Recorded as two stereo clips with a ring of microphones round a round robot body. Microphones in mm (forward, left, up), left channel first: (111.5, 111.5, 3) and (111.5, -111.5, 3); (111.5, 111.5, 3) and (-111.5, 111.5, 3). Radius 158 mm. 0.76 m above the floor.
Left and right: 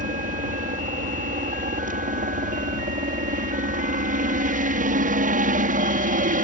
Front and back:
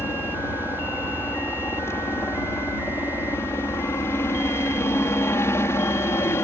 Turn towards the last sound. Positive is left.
turn(degrees=-75)